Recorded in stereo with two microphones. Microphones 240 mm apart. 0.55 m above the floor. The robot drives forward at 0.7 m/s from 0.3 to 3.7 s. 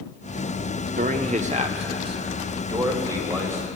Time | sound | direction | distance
1.0 | a man speaking | 35° right (ahead or behind) | 0.7 m